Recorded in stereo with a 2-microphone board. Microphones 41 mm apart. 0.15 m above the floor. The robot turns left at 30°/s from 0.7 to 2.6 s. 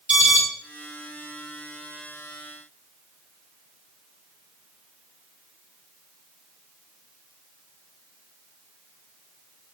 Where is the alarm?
35° right (ahead or behind), 1.2 m.